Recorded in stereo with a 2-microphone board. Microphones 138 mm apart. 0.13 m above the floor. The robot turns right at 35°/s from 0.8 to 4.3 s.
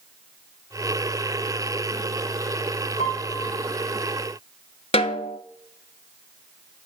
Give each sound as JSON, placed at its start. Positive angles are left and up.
{"t": 3.0, "sound": "a piano", "side_deg": 65, "distance_m": 2.5}
{"t": 4.9, "sound": "a snare drum", "side_deg": 50, "distance_m": 0.6}